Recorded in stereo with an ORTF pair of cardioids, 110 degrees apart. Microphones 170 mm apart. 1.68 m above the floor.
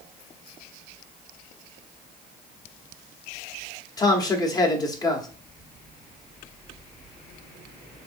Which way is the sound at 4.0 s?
25° left.